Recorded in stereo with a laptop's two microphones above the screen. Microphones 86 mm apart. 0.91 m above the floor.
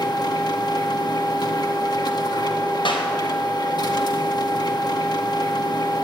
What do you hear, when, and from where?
0.0 s a machine running: 55° left (ahead or behind), 2.0 m
2.9 s a clap: 70° left (ahead or behind), 4 m